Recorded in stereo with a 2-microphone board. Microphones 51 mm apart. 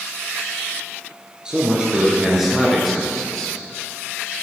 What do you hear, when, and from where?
1.4 s a man speaking: 15° right (ahead or behind), 2 m; by 3.6 s 15° left (ahead or behind), 1.8 m